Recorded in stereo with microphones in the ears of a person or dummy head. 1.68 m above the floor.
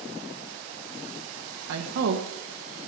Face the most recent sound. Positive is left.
turn(degrees=-70)  # may be behind; listen again after turning